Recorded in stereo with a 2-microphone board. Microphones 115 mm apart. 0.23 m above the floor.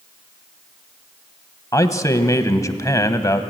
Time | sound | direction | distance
1.7 | a man speaking | 30° left (ahead or behind) | 1.2 m